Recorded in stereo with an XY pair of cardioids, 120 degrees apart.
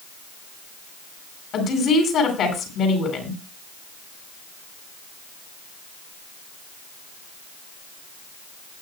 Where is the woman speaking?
55° left, 8 m.